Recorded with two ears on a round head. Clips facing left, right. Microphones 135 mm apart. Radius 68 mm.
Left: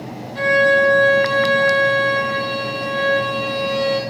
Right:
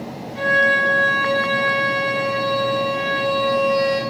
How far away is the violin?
About 7.5 m.